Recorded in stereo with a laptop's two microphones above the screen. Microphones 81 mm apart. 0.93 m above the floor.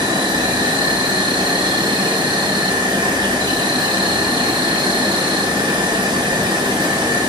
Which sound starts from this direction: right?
An insect, at 0.0 s.